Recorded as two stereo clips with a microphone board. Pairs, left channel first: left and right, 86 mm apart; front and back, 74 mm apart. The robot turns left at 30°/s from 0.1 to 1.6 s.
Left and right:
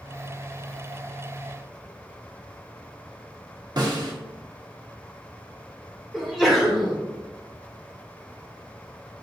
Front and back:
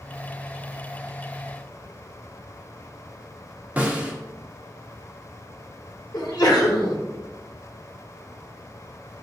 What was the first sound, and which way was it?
A snare drum, 110° right.